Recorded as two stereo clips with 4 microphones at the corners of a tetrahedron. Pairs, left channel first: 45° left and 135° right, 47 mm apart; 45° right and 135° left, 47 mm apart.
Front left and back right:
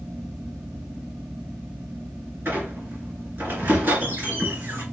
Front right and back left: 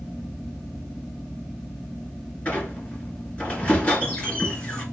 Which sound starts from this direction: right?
A squeak, at 2.5 s.